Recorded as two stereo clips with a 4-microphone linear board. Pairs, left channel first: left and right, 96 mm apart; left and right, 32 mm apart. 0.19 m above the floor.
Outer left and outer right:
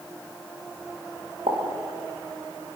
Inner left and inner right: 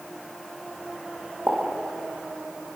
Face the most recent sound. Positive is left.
turn(degrees=-85)